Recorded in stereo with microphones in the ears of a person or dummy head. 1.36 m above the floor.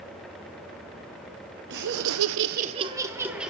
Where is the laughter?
55° right (ahead or behind), 0.9 m; by 3.5 s 5° right (ahead or behind), 1.5 m.